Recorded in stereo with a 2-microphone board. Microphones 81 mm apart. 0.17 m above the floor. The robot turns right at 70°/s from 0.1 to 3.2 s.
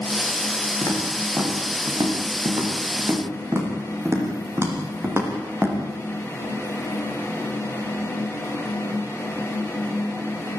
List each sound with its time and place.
0.8 s footsteps: 35° left (ahead or behind), 7.5 m; by 5.8 s 25° right (ahead or behind), 7 m